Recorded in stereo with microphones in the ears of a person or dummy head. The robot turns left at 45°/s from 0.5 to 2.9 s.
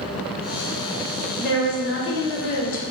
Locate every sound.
1.4 s a woman speaking: 120° left, 0.8 m; by 2.8 s 55° left, 0.8 m